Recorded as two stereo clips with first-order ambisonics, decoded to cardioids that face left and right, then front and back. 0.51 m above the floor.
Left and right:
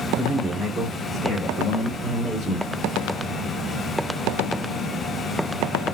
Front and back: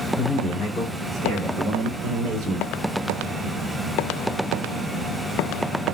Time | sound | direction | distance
0.2 | a man speaking | 50° right | 1.2 m